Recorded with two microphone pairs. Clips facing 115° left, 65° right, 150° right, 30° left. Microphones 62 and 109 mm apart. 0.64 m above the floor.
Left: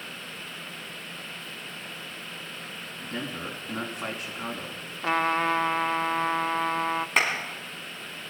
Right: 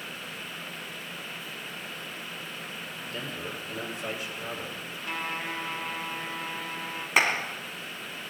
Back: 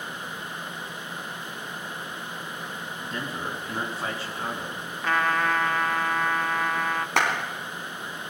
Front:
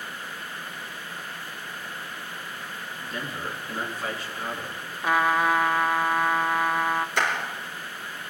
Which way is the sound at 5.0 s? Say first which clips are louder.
Left 10 dB, front 2 dB; 110° left.